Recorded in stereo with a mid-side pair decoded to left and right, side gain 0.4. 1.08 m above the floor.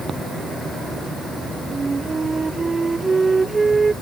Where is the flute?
35° right.